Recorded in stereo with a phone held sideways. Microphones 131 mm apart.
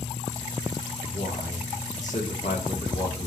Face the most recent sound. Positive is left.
turn(degrees=70)  # may be behind; listen again after turning